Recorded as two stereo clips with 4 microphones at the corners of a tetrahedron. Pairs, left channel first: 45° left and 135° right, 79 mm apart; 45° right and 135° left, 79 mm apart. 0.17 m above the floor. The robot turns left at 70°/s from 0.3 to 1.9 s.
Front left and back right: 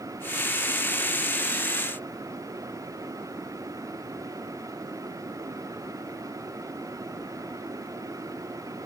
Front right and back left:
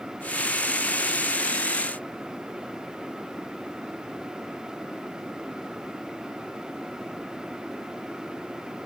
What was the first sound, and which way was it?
Only background noise.